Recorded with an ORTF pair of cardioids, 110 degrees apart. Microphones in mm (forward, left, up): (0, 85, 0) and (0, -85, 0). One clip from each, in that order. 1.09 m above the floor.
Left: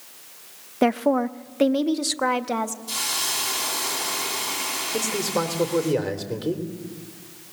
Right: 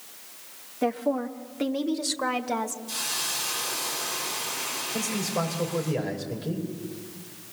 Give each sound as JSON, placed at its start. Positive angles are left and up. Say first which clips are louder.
{"t": 0.8, "sound": "a woman speaking", "louder": "left 6 dB", "azimuth_deg": 55, "distance_m": 0.8}
{"t": 2.9, "sound": "a hiss", "louder": "left 5 dB", "azimuth_deg": 65, "distance_m": 6.0}
{"t": 4.9, "sound": "a man speaking", "louder": "left 5 dB", "azimuth_deg": 50, "distance_m": 3.5}